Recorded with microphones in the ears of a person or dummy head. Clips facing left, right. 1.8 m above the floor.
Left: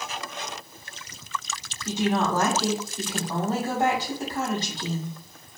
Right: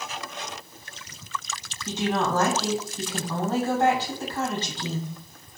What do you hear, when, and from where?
1.9 s a woman speaking: 10° left (ahead or behind), 1.2 m